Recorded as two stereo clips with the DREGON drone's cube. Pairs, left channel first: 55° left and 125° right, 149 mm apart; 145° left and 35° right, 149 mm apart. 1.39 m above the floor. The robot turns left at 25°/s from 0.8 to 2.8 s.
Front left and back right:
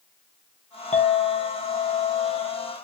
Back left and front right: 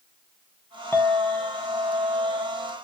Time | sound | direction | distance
0.9 | a clink | 75° left | 0.6 m